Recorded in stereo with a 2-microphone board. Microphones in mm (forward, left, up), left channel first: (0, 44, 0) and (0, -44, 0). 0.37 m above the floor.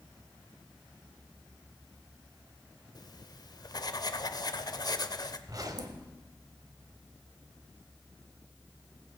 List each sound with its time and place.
3.0 s writing: 50° left (ahead or behind), 0.5 m
5.5 s a zipper: 45° right (ahead or behind), 1.1 m